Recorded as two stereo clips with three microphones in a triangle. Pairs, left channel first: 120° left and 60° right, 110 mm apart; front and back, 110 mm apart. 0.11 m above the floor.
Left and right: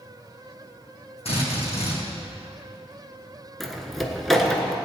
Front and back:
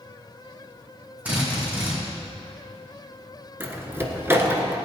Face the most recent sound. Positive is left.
turn(degrees=-155)